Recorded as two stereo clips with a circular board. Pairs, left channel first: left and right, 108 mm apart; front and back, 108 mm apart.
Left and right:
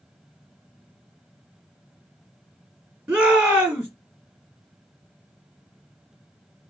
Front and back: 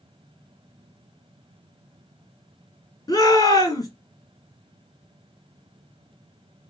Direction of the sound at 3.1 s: 10° right.